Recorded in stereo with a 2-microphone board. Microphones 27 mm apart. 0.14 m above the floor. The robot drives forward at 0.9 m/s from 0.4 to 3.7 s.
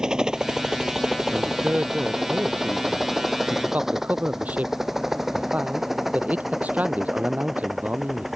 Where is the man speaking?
60° right (ahead or behind); by 8.3 s 75° right (ahead or behind).